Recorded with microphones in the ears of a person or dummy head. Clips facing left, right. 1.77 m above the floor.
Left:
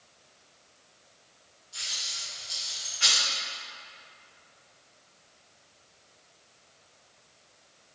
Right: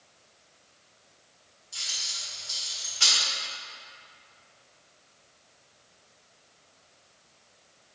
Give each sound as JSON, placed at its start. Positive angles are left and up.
{"t": 1.7, "sound": "keys jangling", "side_deg": -50, "distance_m": 1.5}